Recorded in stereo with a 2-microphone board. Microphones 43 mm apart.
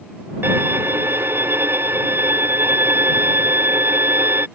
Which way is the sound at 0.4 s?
60° right (ahead or behind).